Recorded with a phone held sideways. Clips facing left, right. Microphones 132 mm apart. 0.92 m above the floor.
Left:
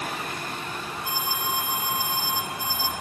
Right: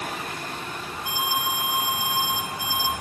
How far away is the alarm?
About 8 m.